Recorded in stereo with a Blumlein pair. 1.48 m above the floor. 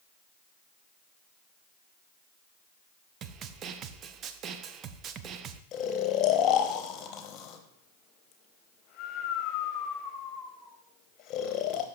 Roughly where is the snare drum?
Ahead right.